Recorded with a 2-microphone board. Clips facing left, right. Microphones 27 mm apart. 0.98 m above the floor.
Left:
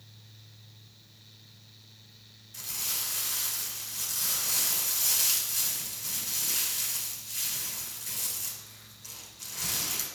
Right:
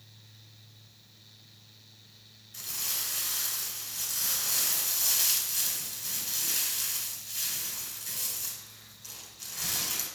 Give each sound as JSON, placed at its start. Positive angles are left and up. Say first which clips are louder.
{"t": 2.5, "sound": "crumpling", "louder": "even", "side_deg": 5, "distance_m": 2.5}